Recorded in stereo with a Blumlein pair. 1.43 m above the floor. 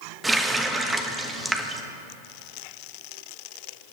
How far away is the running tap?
About 1.2 m.